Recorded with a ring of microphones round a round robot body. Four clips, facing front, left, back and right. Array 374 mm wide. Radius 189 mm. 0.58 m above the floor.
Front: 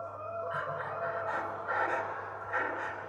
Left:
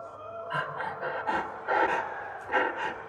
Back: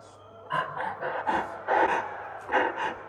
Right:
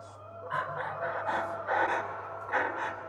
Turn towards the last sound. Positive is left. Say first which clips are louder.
# even, back 5 dB
turn(degrees=170)